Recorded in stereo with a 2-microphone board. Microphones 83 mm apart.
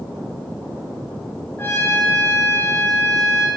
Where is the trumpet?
30° left (ahead or behind), 1.4 m.